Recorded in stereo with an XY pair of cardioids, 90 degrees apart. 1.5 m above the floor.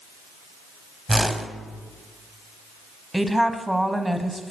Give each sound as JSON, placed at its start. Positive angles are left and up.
{"t": 1.1, "sound": "a whoosh", "azimuth_deg": -10, "distance_m": 0.7}
{"t": 3.1, "sound": "a woman speaking", "azimuth_deg": -5, "distance_m": 0.8}